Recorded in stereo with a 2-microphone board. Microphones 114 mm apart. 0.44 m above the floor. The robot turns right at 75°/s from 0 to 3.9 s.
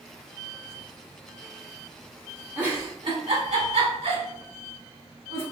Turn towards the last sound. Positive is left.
turn(degrees=-65)  # may be behind; listen again after turning